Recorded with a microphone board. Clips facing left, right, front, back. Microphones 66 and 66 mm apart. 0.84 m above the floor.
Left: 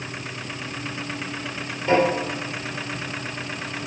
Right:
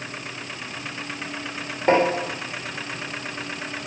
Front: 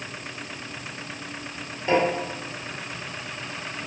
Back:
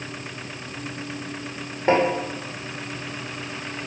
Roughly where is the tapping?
Behind right.